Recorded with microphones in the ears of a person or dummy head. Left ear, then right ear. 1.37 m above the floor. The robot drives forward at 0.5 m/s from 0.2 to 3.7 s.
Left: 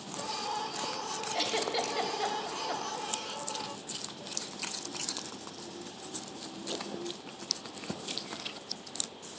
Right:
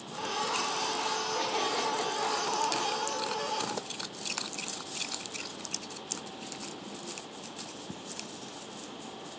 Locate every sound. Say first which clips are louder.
1.3 s a giggle: left 3 dB; 55° left (ahead or behind), 1.8 m; by 3.1 s 50° left (ahead or behind), 2.0 m